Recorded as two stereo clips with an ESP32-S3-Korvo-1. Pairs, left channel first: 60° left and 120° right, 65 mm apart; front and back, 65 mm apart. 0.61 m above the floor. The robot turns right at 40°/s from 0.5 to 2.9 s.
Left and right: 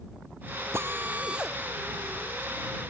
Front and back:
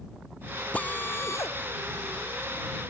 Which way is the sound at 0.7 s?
70° right.